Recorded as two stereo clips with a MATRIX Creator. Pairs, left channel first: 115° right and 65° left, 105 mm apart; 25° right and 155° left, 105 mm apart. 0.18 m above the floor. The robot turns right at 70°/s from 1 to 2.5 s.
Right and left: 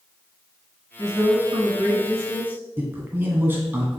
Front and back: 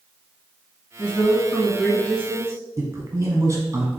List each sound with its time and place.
1.0 s a woman speaking: 20° left, 1.5 m; by 2.6 s 125° left, 1.5 m
2.8 s a man speaking: 125° left, 1.2 m